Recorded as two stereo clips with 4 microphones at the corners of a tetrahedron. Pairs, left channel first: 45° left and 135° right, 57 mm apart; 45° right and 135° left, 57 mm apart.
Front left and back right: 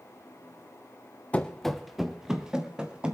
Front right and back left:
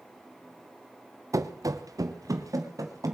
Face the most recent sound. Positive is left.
turn(degrees=150)